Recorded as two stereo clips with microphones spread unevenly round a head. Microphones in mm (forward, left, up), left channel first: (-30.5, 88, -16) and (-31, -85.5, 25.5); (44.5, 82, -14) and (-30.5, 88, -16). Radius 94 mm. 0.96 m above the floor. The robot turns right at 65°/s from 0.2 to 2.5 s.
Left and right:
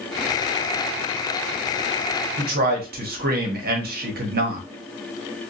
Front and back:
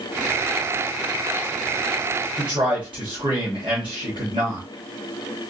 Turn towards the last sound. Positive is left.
turn(degrees=-130)